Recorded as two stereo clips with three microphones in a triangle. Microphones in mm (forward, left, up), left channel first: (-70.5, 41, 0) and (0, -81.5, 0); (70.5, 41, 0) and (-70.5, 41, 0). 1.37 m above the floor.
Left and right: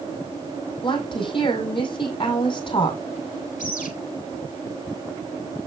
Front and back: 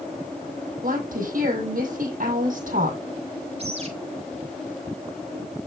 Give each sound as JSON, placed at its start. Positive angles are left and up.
{"t": 0.8, "sound": "a woman speaking", "azimuth_deg": 170, "distance_m": 5.5}
{"t": 3.6, "sound": "a bird", "azimuth_deg": 140, "distance_m": 2.5}